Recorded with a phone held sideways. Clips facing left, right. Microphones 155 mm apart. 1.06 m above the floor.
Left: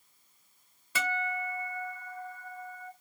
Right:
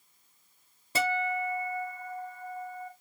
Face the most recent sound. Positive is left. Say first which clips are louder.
# right 5 dB
turn(degrees=-40)  # may be behind; listen again after turning